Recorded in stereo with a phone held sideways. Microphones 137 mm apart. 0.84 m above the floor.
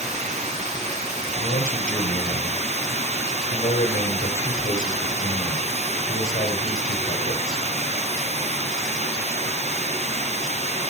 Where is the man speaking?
80° left, 2.5 m.